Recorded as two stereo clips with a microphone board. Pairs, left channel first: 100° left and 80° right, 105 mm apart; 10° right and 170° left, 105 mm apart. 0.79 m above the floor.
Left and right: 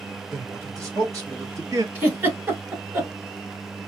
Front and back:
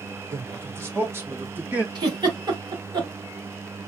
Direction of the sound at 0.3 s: 130° right.